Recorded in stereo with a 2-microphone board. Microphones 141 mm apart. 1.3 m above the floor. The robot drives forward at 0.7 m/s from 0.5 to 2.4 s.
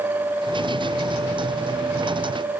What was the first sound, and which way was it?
Only background noise.